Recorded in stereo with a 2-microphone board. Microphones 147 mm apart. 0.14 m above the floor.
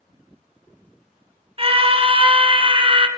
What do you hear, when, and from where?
1.6 s a scream: 40° right (ahead or behind), 1.5 m